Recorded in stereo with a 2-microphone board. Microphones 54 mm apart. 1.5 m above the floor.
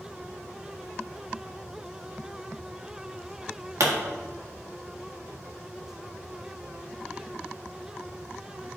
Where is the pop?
85° right, 1.4 m.